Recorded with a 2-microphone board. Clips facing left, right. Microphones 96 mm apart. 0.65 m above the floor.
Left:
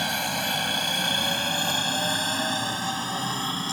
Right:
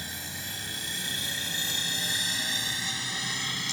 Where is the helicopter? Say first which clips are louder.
Left 13 dB; 70° left (ahead or behind); by 3.7 s 40° left (ahead or behind).